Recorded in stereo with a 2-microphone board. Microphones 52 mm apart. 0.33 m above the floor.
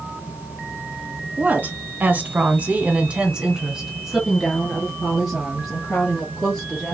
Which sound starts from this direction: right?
A woman speaking, at 1.4 s.